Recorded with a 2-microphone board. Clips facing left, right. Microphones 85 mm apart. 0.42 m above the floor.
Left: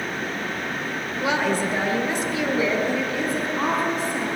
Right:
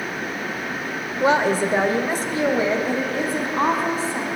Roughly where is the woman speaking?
Right.